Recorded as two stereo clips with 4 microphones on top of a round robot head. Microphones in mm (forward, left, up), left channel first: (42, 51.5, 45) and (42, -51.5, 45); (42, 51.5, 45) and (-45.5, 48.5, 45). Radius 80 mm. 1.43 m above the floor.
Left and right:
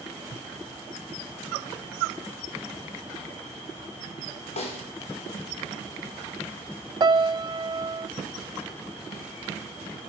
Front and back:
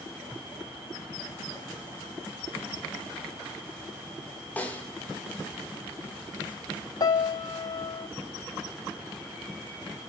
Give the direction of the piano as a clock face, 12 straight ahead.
1 o'clock.